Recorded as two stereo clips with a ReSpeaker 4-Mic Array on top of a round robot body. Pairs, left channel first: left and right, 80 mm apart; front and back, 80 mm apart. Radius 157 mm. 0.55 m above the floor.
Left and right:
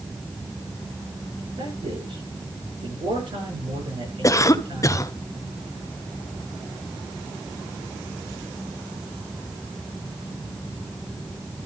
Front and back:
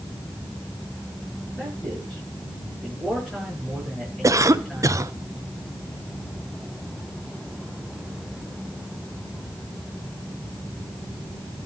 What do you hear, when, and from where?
1.6 s a man speaking: 90° right, 9.5 m
4.2 s a cough: 135° left, 1.2 m